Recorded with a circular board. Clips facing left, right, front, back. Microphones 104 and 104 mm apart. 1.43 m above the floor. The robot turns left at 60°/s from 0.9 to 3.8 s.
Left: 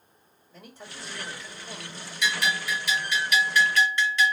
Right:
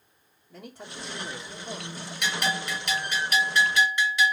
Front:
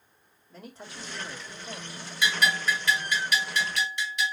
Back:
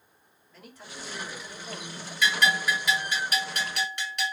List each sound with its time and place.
0.5 s a man speaking: 60° right, 2 m; by 2.1 s 135° right, 2 m
2.2 s a bell: 70° right, 1.8 m; by 4.3 s 165° right, 1.8 m